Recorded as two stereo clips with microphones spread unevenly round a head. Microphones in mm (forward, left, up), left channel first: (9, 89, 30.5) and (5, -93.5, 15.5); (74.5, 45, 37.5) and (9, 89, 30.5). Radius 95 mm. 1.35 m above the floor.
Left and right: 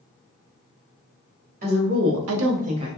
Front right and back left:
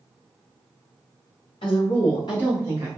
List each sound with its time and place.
1.6 s a woman speaking: 50° right, 1.0 m; by 2.9 s 160° right, 0.8 m